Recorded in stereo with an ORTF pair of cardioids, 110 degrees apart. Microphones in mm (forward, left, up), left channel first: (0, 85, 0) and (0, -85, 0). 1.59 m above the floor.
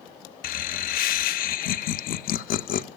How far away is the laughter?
About 0.6 m.